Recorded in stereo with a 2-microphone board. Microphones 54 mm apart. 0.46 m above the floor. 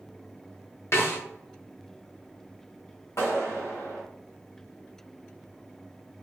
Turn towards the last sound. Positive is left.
turn(degrees=70)  # may be behind; listen again after turning